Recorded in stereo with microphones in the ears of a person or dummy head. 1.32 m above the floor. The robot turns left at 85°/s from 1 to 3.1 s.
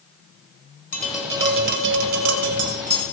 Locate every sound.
0.9 s tapping: 15° left, 1.6 m; by 3.0 s 160° right, 1.6 m